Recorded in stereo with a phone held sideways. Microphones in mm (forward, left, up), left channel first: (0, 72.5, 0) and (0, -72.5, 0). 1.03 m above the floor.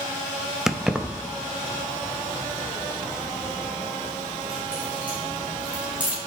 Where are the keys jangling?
5° right (ahead or behind), 0.6 m; by 6.2 s 10° right (ahead or behind), 4.5 m.